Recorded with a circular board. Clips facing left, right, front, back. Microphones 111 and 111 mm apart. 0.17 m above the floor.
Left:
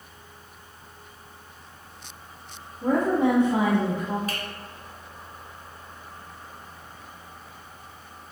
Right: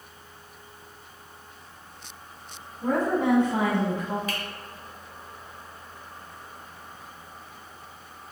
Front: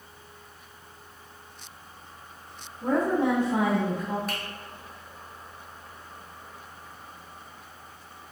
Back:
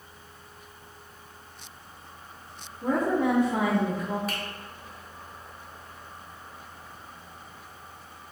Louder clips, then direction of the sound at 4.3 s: Even, even; 90° left.